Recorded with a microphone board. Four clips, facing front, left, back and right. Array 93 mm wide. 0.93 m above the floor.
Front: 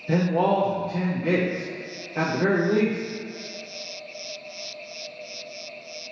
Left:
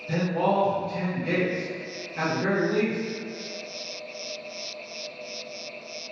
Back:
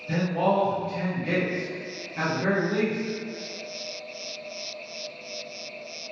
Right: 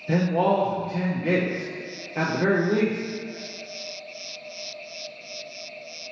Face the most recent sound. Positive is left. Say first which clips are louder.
# right 3 dB, front 3 dB
turn(degrees=-45)